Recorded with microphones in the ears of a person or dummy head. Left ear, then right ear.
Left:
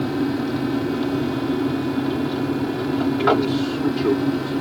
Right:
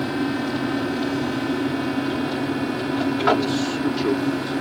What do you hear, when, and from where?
0.0 s an aircraft: 25° right (ahead or behind)